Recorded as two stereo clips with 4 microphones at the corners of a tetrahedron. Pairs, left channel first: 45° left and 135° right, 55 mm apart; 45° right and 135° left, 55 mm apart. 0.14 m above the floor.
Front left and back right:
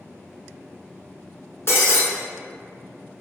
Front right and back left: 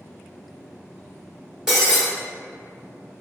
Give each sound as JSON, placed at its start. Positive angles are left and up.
{"t": 1.7, "sound": "breaking glass", "azimuth_deg": 60, "distance_m": 1.1}